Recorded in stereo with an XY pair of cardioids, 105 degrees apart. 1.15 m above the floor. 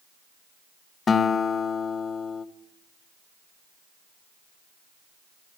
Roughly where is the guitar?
Ahead left.